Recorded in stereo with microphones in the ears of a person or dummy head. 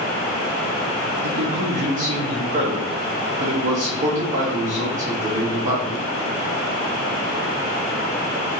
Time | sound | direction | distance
1.2 | a man speaking | 45° right (ahead or behind) | 0.9 m